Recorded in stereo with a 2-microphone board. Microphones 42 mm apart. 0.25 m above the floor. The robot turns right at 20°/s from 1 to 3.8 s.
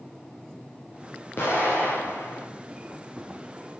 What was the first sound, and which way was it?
An explosion, 65° left (ahead or behind).